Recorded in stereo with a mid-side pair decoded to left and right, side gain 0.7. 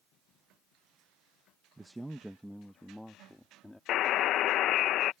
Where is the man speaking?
10° right; by 3.8 s 10° left.